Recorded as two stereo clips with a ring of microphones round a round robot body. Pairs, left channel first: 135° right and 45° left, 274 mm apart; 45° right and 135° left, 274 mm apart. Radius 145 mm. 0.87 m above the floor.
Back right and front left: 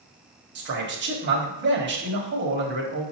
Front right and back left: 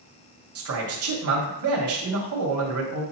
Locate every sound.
0.6 s a man speaking: 95° left, 1.6 m